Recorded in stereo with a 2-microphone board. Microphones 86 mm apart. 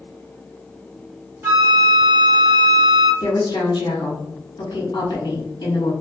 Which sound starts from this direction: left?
A woman speaking, at 3.2 s.